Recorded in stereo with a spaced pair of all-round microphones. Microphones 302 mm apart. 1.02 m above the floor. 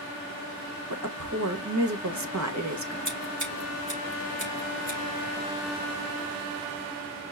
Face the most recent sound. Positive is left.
turn(degrees=-80)